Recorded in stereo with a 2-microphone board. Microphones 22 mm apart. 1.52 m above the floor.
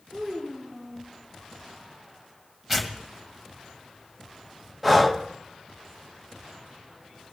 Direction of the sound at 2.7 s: 10° right (ahead or behind).